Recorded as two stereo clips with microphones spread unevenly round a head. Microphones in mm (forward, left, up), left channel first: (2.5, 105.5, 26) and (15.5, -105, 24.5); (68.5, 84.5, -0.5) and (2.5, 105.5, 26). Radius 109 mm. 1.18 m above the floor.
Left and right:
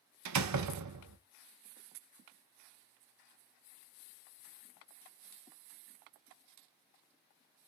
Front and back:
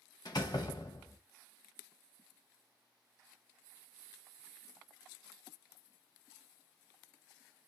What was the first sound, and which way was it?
A door slam, 95° right.